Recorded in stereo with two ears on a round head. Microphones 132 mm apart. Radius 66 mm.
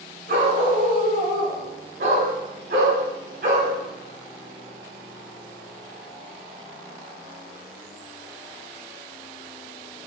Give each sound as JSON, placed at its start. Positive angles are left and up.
{"t": 0.3, "sound": "a dog barking", "side_deg": -70, "distance_m": 4.0}